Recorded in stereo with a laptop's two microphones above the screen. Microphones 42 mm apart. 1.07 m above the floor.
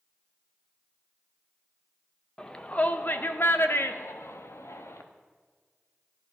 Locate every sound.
2.4 s a shout: 15° left (ahead or behind), 1.0 m; by 5.0 s 80° left, 2.0 m